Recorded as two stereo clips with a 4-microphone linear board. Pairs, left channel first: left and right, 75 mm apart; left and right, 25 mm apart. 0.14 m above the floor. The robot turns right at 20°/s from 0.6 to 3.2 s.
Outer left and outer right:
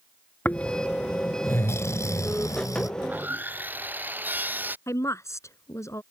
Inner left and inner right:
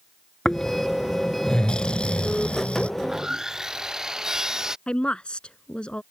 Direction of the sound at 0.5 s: 30° left.